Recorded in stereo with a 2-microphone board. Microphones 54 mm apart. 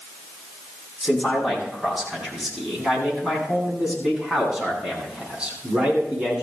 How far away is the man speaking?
About 8.5 m.